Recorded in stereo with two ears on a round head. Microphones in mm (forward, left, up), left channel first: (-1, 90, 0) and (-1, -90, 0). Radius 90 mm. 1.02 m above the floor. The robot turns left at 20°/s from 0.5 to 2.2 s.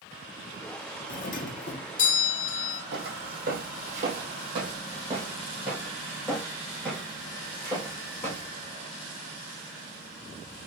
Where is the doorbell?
40° left (ahead or behind), 0.7 m.